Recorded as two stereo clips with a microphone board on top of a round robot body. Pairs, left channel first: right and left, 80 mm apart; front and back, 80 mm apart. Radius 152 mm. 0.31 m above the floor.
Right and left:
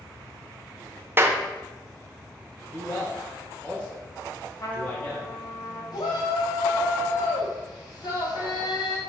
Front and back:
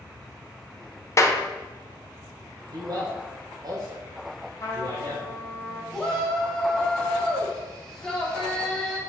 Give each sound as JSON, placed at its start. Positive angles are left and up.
{"t": 1.2, "sound": "a clap", "azimuth_deg": 40, "distance_m": 1.0}
{"t": 2.7, "sound": "a man speaking", "azimuth_deg": -160, "distance_m": 1.9}
{"t": 4.6, "sound": "a trumpet", "azimuth_deg": -50, "distance_m": 2.0}
{"t": 5.9, "sound": "a shout", "azimuth_deg": -80, "distance_m": 3.0}